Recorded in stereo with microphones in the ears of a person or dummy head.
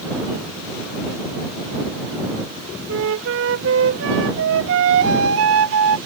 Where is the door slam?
I don't hear a door slam.